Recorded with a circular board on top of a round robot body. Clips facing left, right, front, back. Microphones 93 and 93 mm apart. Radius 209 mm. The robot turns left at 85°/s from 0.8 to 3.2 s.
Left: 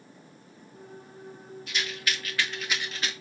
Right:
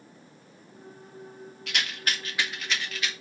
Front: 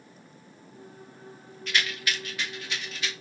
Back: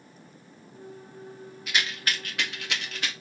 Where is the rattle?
100° right, 2 m; by 3.1 s 135° left, 2 m.